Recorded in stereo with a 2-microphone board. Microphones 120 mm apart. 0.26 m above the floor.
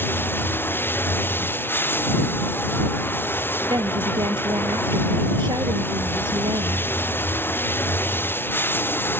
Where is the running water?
15° left (ahead or behind).